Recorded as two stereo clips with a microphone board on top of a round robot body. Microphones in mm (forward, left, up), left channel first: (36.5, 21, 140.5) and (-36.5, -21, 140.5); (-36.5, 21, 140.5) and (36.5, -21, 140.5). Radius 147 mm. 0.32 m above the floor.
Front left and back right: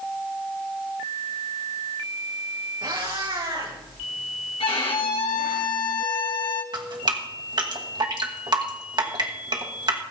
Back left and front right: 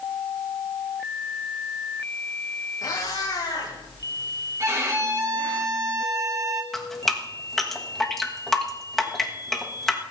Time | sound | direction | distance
2.8 | a cat meowing | 165° right | 6 m
4.6 | a violin | 25° left | 2.5 m
6.7 | dripping | 125° right | 2 m